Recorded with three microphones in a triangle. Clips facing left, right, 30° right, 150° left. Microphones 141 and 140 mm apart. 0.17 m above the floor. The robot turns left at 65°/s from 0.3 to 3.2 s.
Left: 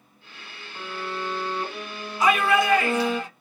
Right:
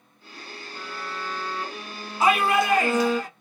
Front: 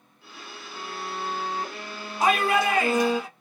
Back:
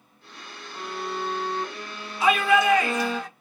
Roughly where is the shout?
Ahead right.